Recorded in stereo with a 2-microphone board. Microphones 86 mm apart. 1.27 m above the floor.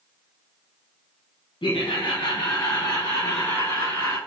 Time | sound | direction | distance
1.6 | laughter | 85° left | 0.6 m